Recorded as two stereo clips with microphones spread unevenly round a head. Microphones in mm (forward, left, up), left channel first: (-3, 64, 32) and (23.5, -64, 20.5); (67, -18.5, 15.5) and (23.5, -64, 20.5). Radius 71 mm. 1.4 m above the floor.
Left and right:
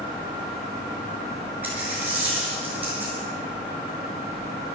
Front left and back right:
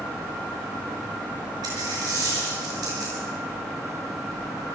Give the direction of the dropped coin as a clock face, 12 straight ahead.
5 o'clock.